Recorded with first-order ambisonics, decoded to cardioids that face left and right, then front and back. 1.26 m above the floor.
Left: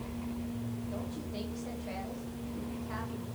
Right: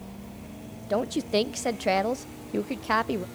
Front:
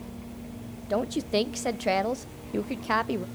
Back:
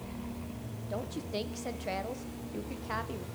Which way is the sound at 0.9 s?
60° right.